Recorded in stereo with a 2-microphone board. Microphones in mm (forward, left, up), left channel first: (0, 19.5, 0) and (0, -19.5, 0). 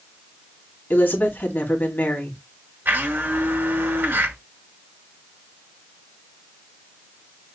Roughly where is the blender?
Right.